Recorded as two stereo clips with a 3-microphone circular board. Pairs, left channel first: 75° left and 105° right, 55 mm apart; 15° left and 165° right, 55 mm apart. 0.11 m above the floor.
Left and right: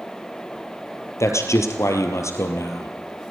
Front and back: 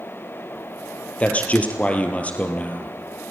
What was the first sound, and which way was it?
A man speaking, 75° left.